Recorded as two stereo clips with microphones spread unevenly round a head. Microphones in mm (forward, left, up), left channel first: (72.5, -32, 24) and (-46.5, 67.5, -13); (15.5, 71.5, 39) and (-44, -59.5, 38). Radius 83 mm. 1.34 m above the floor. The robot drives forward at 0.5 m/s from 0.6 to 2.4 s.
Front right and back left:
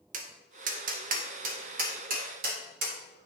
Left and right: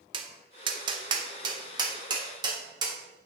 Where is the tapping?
170° right, 0.8 m; by 3.0 s 175° right, 1.7 m.